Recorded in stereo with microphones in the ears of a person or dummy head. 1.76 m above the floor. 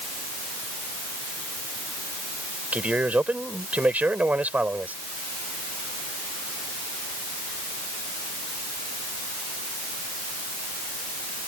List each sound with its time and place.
2.7 s a man speaking: 10° right (ahead or behind)